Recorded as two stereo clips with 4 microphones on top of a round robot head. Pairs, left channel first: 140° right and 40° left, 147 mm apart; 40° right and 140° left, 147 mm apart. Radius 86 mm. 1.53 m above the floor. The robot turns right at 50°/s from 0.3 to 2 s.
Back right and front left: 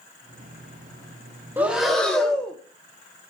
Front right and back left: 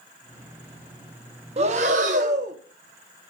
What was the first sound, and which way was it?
Breathing, 110° left.